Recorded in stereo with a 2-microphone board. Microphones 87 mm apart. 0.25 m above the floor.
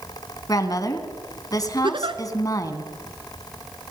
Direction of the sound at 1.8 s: 70° right (ahead or behind).